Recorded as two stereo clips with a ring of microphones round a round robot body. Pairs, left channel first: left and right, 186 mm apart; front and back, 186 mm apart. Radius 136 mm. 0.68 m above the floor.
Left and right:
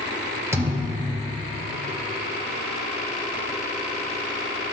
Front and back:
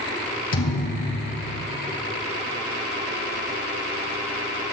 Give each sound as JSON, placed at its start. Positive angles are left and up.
{"t": 0.5, "sound": "a thud", "azimuth_deg": -15, "distance_m": 2.5}